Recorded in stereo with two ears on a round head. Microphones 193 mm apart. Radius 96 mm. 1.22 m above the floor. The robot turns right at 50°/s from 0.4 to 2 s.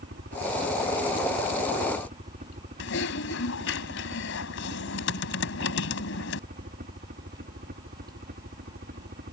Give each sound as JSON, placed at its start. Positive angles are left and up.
{"t": 0.0, "sound": "a helicopter", "side_deg": -50}
{"t": 2.8, "sound": "typing on a keyboard", "side_deg": 65}